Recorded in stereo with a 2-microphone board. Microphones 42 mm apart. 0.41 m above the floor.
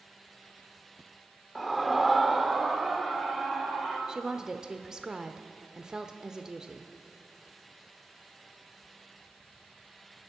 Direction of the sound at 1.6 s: Centre (ahead or behind).